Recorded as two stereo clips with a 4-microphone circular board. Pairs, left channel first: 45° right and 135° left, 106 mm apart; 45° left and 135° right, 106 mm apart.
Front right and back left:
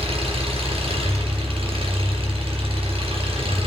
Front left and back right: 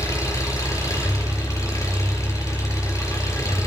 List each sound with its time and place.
0.0 s an engine running: 105° left, 5 m